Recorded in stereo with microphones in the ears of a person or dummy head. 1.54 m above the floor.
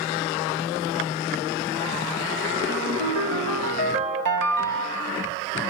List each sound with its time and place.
2.7 s a ringtone: 65° right (ahead or behind), 1.0 m